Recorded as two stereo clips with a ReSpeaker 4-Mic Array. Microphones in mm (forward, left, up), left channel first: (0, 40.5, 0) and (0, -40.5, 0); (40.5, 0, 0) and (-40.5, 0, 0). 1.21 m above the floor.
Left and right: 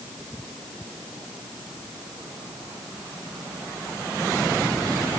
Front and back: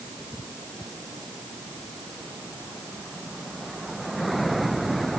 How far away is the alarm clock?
No alarm clock in this recording.